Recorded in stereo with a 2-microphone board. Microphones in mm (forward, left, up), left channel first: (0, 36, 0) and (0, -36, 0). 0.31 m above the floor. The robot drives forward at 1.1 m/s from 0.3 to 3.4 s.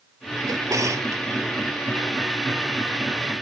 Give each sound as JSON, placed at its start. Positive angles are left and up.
{"t": 0.5, "sound": "a drawer", "side_deg": -55}